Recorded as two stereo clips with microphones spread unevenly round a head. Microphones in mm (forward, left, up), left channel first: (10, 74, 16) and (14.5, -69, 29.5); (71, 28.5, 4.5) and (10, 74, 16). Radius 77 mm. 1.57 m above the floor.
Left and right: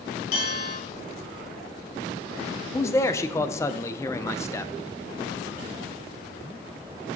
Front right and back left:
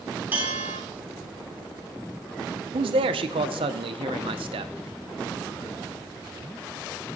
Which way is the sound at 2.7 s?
160° left.